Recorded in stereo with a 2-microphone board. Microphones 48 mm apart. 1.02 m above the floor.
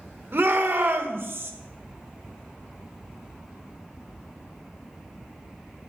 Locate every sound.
0.3 s a shout: 50° right (ahead or behind), 1.1 m